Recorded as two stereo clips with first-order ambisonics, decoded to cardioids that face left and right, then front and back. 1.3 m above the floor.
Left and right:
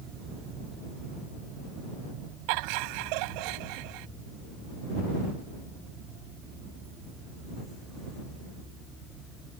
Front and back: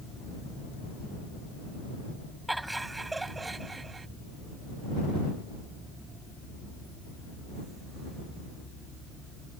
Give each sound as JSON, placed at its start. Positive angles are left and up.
{"t": 2.5, "sound": "laughter", "azimuth_deg": -95}